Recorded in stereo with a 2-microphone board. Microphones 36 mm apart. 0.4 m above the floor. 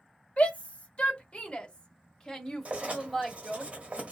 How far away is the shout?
About 1.7 m.